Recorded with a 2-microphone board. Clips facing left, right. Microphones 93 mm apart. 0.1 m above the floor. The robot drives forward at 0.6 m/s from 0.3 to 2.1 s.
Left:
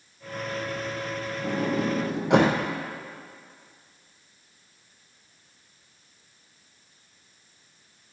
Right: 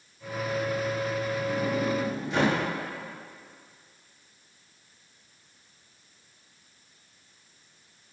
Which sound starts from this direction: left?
A sliding door, at 1.4 s.